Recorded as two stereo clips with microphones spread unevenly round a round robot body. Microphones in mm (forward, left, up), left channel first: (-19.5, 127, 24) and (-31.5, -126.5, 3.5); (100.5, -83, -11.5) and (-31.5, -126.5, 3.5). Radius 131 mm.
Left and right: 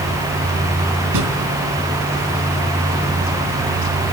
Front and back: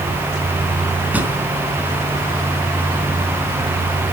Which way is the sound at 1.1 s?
85° right.